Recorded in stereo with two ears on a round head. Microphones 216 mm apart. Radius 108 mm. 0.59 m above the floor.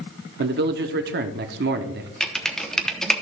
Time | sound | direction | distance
0.4 | a man speaking | 45° right (ahead or behind) | 0.9 m
2.2 | typing on a keyboard | centre (ahead or behind) | 1.1 m